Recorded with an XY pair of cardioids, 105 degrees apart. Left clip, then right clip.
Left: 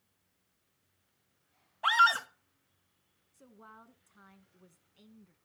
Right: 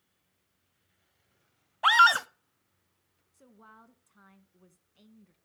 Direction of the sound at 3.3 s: Straight ahead.